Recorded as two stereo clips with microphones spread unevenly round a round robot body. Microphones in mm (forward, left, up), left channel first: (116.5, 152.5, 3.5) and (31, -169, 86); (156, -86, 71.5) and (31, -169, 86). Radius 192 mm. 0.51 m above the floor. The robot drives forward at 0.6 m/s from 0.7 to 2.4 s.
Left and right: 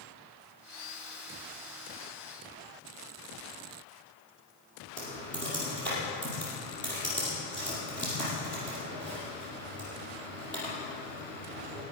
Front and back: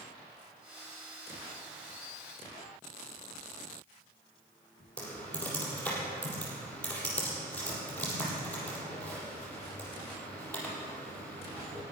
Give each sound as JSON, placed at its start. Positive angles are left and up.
{"t": 5.0, "sound": "typing on a keyboard", "azimuth_deg": 165, "distance_m": 4.0}